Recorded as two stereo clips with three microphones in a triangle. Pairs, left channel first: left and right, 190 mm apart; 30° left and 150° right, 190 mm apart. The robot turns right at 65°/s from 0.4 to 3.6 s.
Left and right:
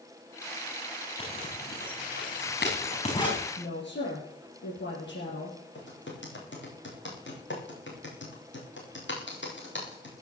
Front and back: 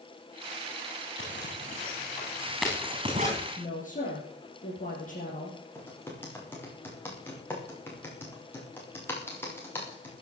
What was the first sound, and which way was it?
A zipper, 25° left.